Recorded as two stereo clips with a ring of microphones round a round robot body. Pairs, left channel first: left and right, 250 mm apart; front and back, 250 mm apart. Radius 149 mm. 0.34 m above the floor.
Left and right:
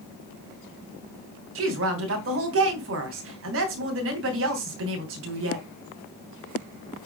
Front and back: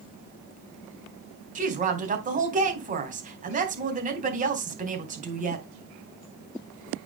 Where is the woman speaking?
125° right, 3 m.